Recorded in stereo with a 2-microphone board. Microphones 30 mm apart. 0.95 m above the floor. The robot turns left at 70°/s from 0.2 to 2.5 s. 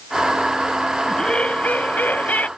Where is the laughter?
160° left; by 2.5 s 60° left.